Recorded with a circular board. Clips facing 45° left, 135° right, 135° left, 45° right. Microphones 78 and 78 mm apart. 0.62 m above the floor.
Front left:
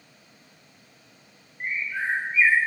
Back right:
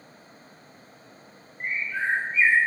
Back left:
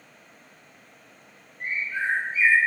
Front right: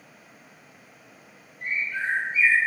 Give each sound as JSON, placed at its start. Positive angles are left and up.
{"t": 1.6, "sound": "a bird", "azimuth_deg": 130, "distance_m": 4.5}